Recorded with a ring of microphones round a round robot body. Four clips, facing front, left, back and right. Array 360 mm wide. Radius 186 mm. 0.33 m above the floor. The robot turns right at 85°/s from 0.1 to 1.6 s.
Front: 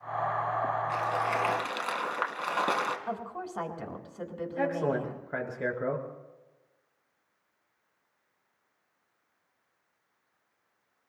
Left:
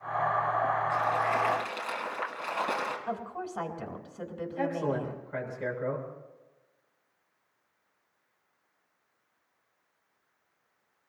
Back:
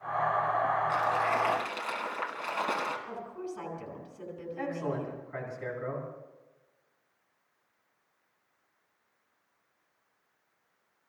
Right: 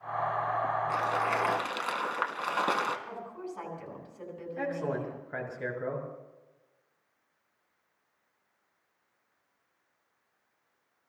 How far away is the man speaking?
About 6 m.